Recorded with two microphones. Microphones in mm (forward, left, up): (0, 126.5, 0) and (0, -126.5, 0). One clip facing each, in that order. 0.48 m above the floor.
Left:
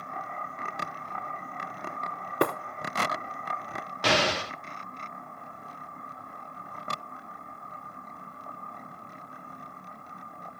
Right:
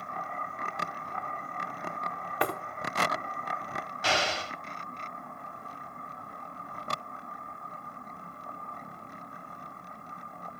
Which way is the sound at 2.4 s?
50° left (ahead or behind).